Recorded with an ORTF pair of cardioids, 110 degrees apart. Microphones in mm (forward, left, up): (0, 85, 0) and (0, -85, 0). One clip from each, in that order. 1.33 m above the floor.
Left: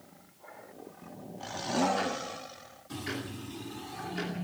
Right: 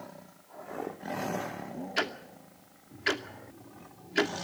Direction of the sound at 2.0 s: 65° right.